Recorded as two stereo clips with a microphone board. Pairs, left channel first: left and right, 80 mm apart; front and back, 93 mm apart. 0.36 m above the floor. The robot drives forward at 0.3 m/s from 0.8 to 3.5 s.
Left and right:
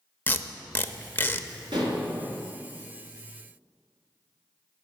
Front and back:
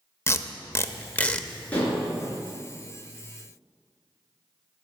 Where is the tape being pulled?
40° left, 0.6 m; by 1.5 s 75° left, 0.5 m.